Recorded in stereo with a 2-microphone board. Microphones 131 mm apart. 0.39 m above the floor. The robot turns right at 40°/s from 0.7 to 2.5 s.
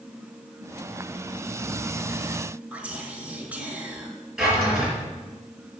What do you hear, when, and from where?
2.7 s whispering: 10° right (ahead or behind), 1.7 m
4.4 s a drawer: centre (ahead or behind), 4 m